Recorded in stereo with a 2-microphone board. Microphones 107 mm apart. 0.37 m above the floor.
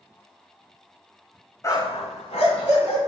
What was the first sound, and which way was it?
A dog barking, 30° left (ahead or behind).